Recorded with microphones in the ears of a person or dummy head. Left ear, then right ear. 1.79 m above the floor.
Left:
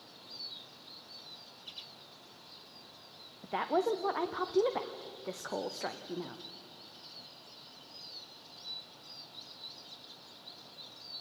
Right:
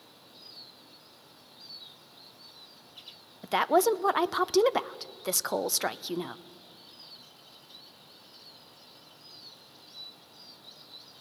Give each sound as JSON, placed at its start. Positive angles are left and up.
{"t": 3.4, "sound": "a woman speaking", "side_deg": -75, "distance_m": 0.6}